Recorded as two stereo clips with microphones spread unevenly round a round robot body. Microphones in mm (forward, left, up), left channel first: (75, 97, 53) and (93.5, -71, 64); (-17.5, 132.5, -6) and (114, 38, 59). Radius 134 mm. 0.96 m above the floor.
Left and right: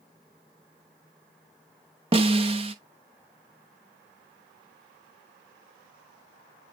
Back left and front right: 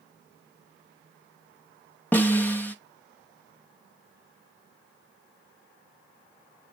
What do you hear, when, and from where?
2.1 s a snare drum: 145° right, 0.6 m